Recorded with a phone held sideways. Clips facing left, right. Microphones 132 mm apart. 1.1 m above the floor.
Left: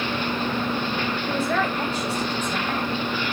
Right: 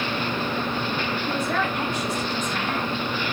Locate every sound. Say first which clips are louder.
1.3 s a man speaking: left 2 dB; 5° left (ahead or behind), 1.2 m